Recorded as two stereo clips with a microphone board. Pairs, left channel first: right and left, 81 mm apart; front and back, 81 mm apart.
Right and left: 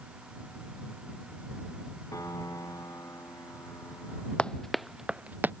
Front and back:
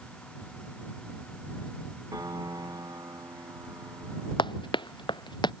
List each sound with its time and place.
2.1 s a piano: 140° right
4.4 s running footsteps: 10° right; by 5.5 s 25° left